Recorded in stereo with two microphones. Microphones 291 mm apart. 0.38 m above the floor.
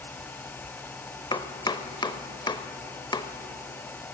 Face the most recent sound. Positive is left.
turn(degrees=15)  # may be behind; listen again after turning